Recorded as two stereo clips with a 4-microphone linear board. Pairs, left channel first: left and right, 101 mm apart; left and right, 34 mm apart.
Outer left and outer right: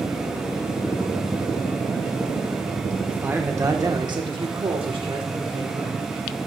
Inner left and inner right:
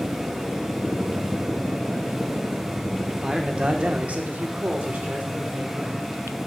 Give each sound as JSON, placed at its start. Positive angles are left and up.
{"t": 3.1, "sound": "a man speaking", "side_deg": -15, "distance_m": 1.3}